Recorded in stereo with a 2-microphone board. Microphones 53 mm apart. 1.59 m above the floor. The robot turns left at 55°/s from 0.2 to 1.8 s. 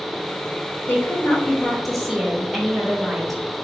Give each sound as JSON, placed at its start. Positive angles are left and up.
{"t": 0.9, "sound": "a woman speaking", "azimuth_deg": 50, "distance_m": 2.5}